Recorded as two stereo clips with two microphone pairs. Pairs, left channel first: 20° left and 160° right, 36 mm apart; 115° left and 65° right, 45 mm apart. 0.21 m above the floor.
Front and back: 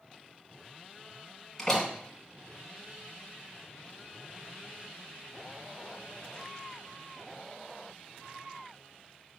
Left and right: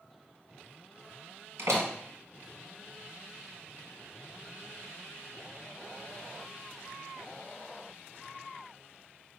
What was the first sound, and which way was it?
A door slam, 60° right.